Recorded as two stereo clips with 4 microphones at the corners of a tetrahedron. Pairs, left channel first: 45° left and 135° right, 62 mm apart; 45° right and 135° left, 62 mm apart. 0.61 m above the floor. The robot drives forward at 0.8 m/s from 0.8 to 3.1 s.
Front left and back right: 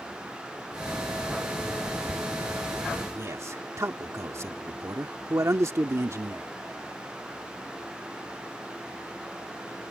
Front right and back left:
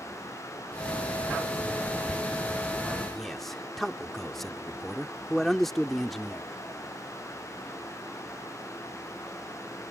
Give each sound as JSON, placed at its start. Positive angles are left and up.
{"t": 3.1, "sound": "a man speaking", "azimuth_deg": -130}